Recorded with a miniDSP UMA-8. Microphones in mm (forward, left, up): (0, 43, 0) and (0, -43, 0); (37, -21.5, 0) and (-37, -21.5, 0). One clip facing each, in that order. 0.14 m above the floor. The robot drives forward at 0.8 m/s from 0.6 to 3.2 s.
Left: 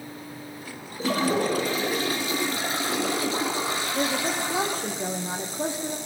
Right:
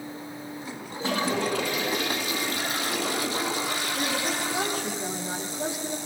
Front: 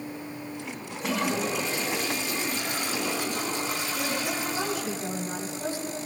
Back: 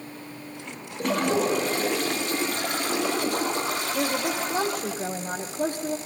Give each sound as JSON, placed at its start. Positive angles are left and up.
{"t": 1.0, "sound": "a toilet flushing", "azimuth_deg": 140, "distance_m": 5.0}
{"t": 4.0, "sound": "a woman speaking", "azimuth_deg": 145, "distance_m": 6.5}